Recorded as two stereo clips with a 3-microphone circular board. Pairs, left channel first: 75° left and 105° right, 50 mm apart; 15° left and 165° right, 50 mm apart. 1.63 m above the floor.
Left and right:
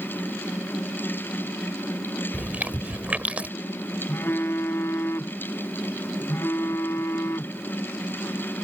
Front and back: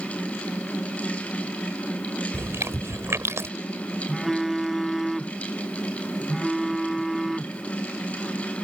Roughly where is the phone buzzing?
Left.